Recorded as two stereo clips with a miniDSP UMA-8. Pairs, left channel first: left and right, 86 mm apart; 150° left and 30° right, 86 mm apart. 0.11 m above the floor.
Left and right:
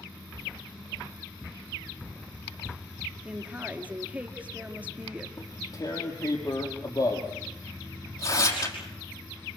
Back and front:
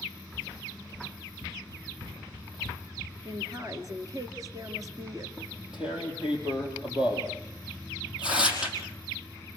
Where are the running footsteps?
Straight ahead, 2 m; by 3.1 s 40° right, 1.7 m.